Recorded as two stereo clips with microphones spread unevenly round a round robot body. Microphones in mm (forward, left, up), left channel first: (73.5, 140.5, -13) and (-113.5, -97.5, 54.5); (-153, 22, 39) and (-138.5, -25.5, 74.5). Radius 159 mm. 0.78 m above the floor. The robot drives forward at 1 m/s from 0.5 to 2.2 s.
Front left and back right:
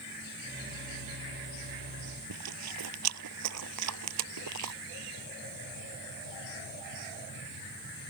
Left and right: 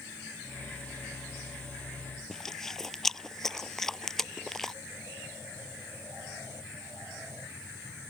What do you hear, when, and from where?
2.3 s chewing: 160° right